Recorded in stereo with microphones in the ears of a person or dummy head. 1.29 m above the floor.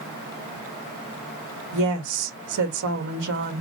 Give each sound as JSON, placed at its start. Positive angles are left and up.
{"t": 1.7, "sound": "a woman speaking", "side_deg": -65, "distance_m": 1.5}